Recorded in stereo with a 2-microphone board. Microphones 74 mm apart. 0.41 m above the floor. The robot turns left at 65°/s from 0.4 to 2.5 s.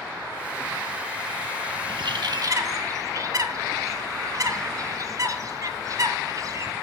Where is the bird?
75° right (ahead or behind), 0.8 m; by 6.7 s 45° right (ahead or behind), 0.8 m.